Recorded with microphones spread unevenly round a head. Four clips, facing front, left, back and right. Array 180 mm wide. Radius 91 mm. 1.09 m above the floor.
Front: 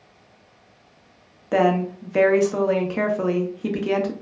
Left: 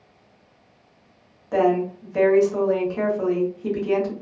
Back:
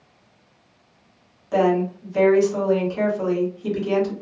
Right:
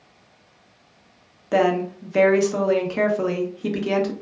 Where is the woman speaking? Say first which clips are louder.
Even, even; 50° right, 0.9 m.